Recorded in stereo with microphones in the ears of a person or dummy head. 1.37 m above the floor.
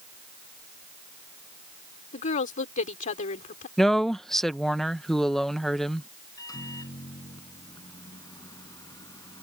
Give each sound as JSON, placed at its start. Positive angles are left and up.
{"t": 2.1, "sound": "a woman speaking", "side_deg": 45}
{"t": 3.8, "sound": "a woman speaking", "side_deg": 5}
{"t": 6.4, "sound": "a microwave", "side_deg": 20}